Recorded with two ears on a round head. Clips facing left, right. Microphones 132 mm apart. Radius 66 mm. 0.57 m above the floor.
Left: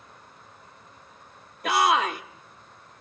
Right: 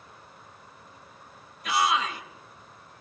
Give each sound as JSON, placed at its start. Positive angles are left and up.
{"t": 1.6, "sound": "a shout", "side_deg": 50, "distance_m": 1.8}